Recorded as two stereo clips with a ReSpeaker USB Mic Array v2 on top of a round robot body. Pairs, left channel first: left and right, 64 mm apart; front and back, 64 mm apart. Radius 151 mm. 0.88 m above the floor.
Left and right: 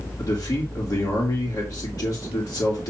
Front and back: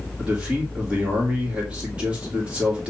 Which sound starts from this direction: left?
A man speaking, at 0.2 s.